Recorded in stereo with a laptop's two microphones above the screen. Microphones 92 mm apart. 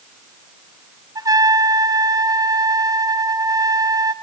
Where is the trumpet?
40° right (ahead or behind), 0.7 m.